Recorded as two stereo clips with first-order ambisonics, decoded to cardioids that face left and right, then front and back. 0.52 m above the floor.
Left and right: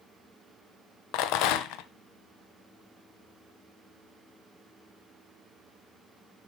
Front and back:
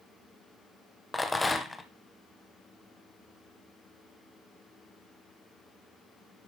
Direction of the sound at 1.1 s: 80° left.